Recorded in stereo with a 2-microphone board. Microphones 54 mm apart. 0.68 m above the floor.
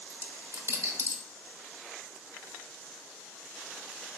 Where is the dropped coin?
80° right, 1.2 m.